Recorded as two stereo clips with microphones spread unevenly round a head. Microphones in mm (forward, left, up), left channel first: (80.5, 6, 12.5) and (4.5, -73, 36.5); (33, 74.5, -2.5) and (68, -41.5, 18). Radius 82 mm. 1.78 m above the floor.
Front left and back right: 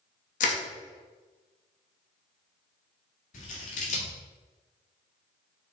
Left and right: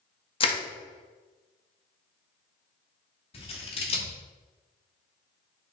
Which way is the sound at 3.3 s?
65° left.